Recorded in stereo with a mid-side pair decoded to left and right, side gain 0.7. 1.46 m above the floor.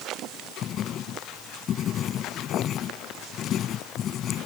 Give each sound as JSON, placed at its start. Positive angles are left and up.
{"t": 0.6, "sound": "writing", "azimuth_deg": 40}